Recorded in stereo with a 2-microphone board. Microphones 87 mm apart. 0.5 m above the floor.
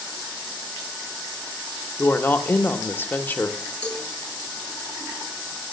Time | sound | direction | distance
2.0 | a woman speaking | 20° left (ahead or behind) | 0.7 m
3.8 | a cowbell | 10° left (ahead or behind) | 3 m